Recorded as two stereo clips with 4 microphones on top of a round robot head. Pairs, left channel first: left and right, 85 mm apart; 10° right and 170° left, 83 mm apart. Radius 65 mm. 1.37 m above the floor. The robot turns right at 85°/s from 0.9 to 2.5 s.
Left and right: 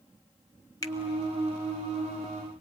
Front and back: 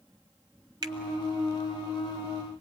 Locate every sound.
0.8 s a finger snap: 140° left, 1.5 m